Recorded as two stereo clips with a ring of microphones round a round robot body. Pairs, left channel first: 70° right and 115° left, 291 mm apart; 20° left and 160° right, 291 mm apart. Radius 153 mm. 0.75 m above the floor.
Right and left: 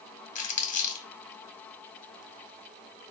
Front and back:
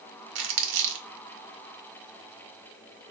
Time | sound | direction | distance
0.3 | crumpling | 130° right | 0.8 m